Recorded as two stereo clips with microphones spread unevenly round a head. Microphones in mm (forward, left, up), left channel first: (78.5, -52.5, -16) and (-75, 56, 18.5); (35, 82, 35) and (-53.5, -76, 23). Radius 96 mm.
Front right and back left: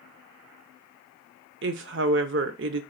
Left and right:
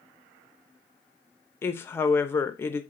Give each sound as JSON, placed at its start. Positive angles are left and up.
{"t": 1.6, "sound": "a woman speaking", "azimuth_deg": 140, "distance_m": 0.6}